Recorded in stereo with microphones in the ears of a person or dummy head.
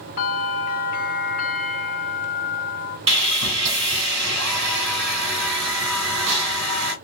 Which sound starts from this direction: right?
Sawing, at 3.1 s.